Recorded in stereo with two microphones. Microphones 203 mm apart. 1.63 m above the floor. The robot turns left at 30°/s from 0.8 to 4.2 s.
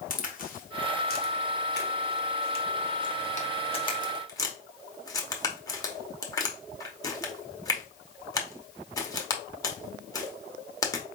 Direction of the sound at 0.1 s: 45° left (ahead or behind).